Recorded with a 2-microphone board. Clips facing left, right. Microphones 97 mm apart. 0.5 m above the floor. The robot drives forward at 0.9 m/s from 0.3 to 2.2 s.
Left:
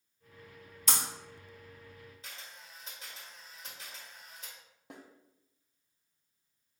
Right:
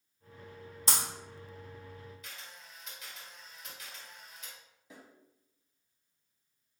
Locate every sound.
0.9 s breaking glass: 35° right (ahead or behind), 1.2 m
2.2 s a camera shutter: 30° left (ahead or behind), 1.7 m
4.9 s a snare drum: 60° left (ahead or behind), 0.6 m